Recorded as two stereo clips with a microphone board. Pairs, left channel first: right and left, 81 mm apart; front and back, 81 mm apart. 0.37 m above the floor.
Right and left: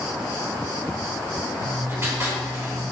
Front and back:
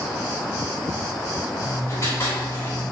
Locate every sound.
1.6 s writing: 45° left, 1.2 m